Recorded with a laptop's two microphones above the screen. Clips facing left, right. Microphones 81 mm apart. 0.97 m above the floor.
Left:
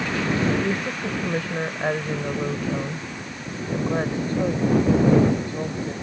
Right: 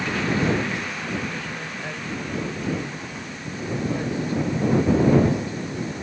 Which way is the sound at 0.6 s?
50° left (ahead or behind).